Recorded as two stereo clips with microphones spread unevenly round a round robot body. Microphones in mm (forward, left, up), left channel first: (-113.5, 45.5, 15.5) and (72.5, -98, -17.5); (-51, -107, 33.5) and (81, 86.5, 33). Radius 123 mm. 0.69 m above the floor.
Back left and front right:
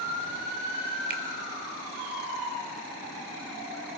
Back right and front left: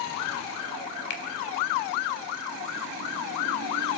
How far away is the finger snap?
About 1.8 m.